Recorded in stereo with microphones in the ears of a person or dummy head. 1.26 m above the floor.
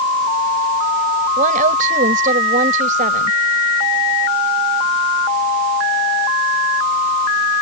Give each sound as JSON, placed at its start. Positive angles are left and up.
{"t": 1.4, "sound": "a woman speaking", "side_deg": -50}